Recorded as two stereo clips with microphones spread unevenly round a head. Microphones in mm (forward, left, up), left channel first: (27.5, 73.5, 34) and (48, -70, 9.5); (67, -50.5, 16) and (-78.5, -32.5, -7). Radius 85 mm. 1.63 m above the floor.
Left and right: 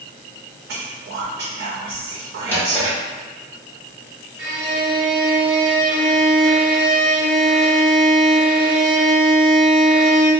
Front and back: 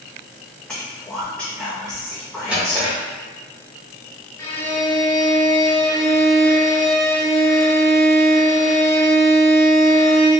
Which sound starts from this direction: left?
A drawer, at 2.5 s.